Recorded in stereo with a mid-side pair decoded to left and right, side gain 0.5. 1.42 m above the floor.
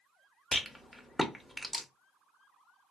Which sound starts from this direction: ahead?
A rattle, at 0.5 s.